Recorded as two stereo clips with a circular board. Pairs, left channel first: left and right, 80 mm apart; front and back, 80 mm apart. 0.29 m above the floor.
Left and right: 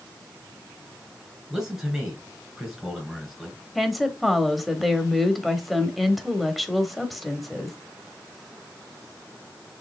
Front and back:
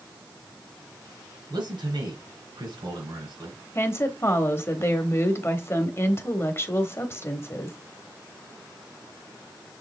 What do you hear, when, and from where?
1.5 s a man speaking: 175° right, 4 m
3.8 s a woman speaking: straight ahead, 1.2 m